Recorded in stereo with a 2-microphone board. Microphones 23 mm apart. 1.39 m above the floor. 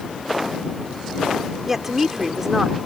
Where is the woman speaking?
15° right (ahead or behind).